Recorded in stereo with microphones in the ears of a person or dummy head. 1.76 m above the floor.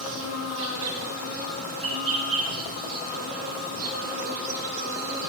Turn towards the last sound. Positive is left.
turn(degrees=-70)  # may be behind; listen again after turning